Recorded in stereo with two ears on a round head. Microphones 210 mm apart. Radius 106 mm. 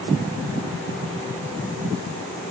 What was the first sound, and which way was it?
Only background noise.